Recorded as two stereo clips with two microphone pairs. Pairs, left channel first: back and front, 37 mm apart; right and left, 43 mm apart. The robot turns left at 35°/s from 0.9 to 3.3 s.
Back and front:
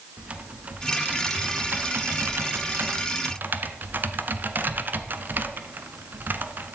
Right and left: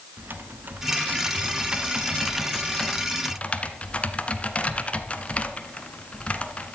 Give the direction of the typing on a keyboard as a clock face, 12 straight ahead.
10 o'clock.